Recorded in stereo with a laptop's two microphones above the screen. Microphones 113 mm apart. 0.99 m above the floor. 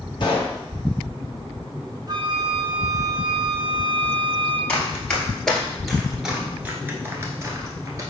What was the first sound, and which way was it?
A pop, 45° left (ahead or behind).